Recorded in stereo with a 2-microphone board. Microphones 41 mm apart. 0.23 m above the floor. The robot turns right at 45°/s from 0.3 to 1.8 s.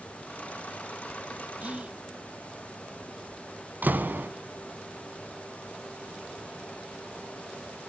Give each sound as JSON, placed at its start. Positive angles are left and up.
{"t": 1.6, "sound": "whispering", "side_deg": -35, "distance_m": 1.3}
{"t": 3.8, "sound": "a door slam", "side_deg": -50, "distance_m": 1.4}